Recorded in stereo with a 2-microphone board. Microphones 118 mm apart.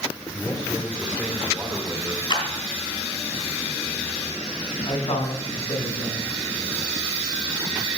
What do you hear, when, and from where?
0.3 s a man speaking: 5° left (ahead or behind), 1.7 m; by 2.2 s 25° right (ahead or behind), 1.6 m
2.3 s a clap: 45° left (ahead or behind), 3 m
4.8 s a man speaking: 70° left (ahead or behind), 3.5 m